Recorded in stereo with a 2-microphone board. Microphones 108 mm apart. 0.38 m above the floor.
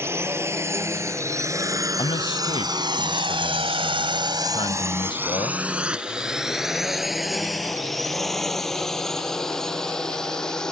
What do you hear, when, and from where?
0.0 s a drone: 25° right (ahead or behind); by 10.7 s 5° left (ahead or behind)
2.0 s a man speaking: 55° left (ahead or behind)